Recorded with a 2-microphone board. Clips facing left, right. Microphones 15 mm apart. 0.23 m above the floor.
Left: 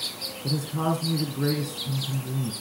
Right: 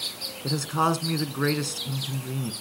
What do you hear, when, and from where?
0.4 s a man speaking: 55° right (ahead or behind), 2 m